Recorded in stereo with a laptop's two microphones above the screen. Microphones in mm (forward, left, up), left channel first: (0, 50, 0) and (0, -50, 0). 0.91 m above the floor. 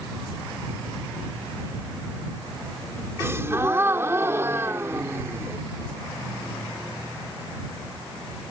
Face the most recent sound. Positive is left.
turn(degrees=-25)  # may be behind; listen again after turning